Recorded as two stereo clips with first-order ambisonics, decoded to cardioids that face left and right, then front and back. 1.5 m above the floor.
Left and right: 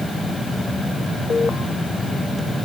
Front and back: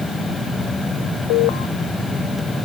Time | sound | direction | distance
1.3 | an alarm | 15° left | ?